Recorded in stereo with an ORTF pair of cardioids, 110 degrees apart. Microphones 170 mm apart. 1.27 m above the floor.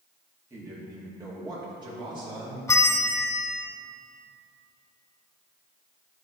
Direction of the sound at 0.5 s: 15° right.